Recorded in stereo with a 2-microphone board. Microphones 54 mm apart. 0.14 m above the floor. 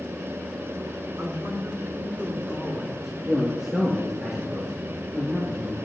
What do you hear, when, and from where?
1.2 s a man speaking: 50° right (ahead or behind), 2.5 m; by 3.1 s 5° right (ahead or behind), 3 m
3.2 s a man speaking: 10° right (ahead or behind), 3 m